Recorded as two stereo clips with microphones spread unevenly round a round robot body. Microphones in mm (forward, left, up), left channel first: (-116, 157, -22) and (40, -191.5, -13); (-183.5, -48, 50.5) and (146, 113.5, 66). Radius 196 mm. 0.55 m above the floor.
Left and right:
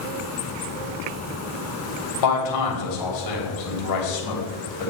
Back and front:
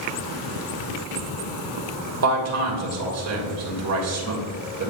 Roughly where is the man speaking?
Left.